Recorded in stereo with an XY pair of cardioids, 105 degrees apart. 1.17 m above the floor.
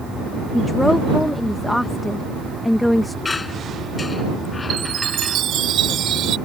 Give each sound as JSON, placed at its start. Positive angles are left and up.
{"t": 0.5, "sound": "a woman speaking", "azimuth_deg": 10}
{"t": 3.2, "sound": "a squeak", "azimuth_deg": 30}
{"t": 4.7, "sound": "a chime", "azimuth_deg": -70}